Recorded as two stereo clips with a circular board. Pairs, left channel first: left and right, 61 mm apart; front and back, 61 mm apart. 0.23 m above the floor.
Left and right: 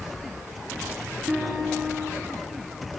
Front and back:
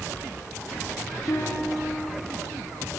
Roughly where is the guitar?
Ahead right.